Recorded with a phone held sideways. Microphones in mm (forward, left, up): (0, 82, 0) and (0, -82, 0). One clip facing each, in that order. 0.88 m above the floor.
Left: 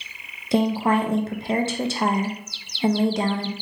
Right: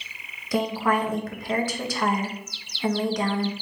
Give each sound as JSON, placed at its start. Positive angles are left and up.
{"t": 0.5, "sound": "a woman speaking", "side_deg": 25, "distance_m": 0.7}